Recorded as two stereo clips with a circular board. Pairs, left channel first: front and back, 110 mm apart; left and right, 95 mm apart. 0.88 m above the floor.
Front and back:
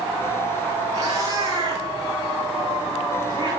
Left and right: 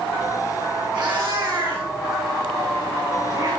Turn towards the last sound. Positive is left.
turn(degrees=-130)